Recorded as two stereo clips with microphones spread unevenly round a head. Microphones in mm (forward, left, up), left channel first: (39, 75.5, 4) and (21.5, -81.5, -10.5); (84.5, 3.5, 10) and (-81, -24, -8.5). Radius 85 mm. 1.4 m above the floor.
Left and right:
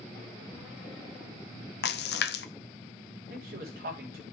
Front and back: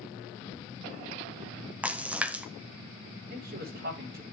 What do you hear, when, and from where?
1.8 s a splash: 110° left, 0.5 m
3.3 s a man speaking: 135° right, 3.5 m